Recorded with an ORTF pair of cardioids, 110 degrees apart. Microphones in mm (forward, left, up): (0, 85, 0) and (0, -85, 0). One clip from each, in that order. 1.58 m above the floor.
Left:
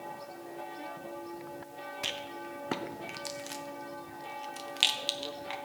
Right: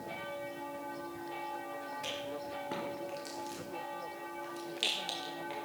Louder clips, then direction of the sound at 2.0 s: Left 5 dB; 50° left.